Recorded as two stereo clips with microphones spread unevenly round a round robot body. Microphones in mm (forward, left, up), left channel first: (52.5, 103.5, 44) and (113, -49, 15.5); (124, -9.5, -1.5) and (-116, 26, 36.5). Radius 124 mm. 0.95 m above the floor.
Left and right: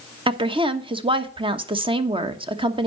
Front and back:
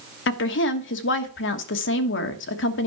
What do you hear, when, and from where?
0.3 s a woman speaking: 25° right, 1.2 m